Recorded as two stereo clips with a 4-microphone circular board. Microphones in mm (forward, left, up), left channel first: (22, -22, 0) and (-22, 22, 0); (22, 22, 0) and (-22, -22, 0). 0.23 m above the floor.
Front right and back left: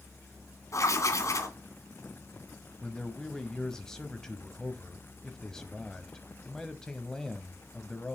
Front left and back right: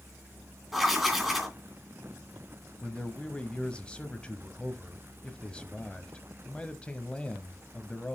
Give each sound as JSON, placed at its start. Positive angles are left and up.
{"t": 0.7, "sound": "writing", "azimuth_deg": -50, "distance_m": 2.5}
{"t": 2.8, "sound": "a man speaking", "azimuth_deg": 15, "distance_m": 0.9}